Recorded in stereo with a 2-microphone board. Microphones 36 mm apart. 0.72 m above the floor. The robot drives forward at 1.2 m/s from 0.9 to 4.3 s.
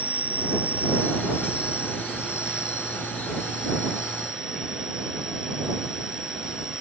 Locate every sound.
0.0 s an insect: 45° right (ahead or behind); by 6.8 s 20° right (ahead or behind)